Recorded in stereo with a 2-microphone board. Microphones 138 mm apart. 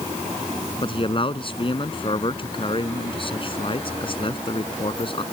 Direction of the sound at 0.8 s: 40° left (ahead or behind).